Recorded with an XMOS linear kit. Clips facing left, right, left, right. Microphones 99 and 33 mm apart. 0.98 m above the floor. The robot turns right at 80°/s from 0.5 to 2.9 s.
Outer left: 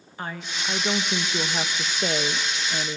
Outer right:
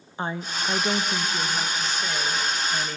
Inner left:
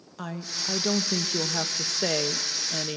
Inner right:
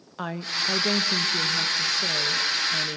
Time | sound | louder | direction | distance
0.2 | a woman speaking | outer right 4 dB, inner right 6 dB | 30° right | 1.0 m